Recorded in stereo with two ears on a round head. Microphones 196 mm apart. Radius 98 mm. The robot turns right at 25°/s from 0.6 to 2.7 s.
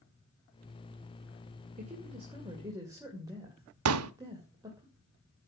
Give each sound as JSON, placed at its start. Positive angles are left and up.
{"t": 1.8, "sound": "a woman speaking", "side_deg": -35, "distance_m": 2.5}
{"t": 3.9, "sound": "a pop", "side_deg": -75, "distance_m": 0.8}